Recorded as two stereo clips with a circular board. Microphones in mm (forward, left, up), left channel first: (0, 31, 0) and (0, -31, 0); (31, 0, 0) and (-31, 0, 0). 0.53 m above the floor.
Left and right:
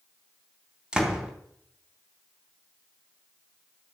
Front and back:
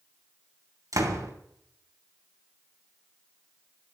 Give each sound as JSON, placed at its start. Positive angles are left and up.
{"t": 0.9, "sound": "a door slam", "azimuth_deg": -165, "distance_m": 3.5}